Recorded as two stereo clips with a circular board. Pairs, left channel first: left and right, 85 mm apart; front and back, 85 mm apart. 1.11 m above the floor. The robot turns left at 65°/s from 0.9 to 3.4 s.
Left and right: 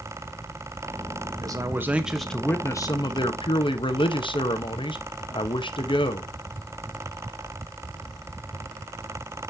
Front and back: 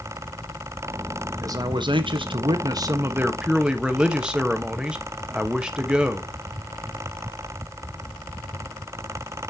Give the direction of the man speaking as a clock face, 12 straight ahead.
4 o'clock.